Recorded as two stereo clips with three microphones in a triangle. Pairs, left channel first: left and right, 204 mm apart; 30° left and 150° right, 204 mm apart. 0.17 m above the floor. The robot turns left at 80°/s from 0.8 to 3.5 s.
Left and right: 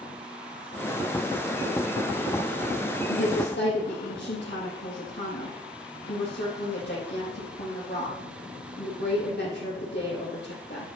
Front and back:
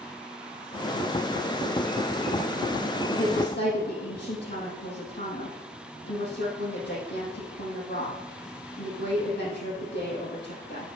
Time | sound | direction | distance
3.1 | a woman speaking | 95° left | 5 m